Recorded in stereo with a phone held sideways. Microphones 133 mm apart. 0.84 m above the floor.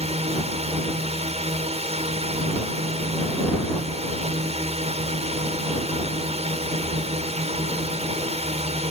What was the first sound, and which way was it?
A drone, 50° right (ahead or behind).